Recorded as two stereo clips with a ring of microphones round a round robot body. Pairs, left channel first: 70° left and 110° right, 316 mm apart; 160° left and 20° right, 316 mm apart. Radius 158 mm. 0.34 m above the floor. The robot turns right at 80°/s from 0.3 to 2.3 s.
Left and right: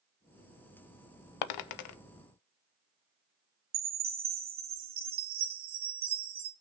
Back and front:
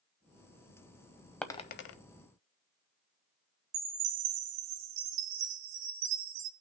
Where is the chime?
50° right, 1.0 m.